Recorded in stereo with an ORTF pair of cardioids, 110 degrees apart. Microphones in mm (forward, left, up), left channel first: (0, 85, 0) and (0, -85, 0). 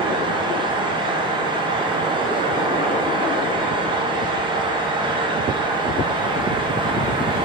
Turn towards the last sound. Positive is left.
turn(degrees=-30)